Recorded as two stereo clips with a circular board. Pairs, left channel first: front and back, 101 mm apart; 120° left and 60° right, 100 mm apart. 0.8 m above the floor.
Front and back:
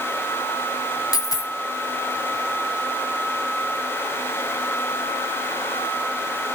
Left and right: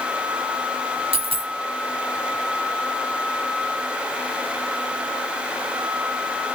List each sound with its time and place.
1.1 s a dropped coin: 50° right, 2 m